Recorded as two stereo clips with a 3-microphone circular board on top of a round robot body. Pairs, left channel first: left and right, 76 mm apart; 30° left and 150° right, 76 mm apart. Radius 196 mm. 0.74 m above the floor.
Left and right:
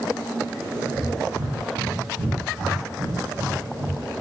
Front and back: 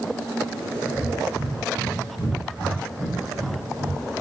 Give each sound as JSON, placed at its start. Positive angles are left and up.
{"t": 0.9, "sound": "breathing", "azimuth_deg": -60, "distance_m": 9.0}